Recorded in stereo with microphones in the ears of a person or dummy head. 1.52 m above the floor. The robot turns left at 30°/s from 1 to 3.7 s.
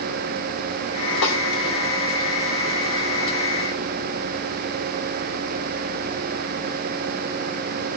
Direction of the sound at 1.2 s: 70° left (ahead or behind).